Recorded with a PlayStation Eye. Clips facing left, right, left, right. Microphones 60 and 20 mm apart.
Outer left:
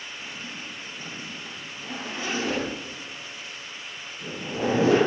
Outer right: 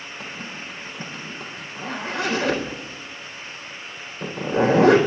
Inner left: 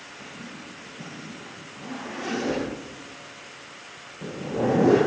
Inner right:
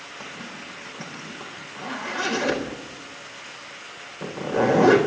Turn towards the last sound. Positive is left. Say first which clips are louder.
# outer right 5 dB, inner right 3 dB
turn(degrees=-65)  # may be behind; listen again after turning